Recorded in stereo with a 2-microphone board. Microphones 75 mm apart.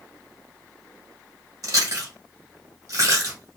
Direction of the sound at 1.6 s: 55° right (ahead or behind).